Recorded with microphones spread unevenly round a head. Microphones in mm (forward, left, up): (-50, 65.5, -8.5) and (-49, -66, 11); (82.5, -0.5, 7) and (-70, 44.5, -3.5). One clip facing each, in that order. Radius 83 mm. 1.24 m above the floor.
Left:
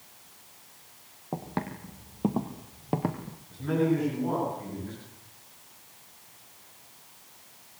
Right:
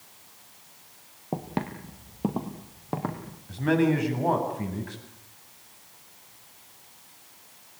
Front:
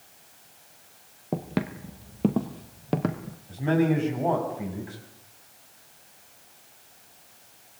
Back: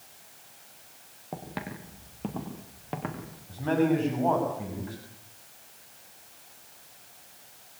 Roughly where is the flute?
I don't hear a flute.